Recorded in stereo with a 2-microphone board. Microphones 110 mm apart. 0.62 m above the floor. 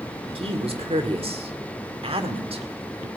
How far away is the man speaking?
About 1.7 m.